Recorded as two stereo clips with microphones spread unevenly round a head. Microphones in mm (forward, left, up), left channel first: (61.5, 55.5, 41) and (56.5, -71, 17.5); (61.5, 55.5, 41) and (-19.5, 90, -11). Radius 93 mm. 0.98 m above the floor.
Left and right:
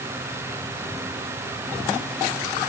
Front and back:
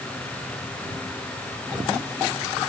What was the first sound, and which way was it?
Only background noise.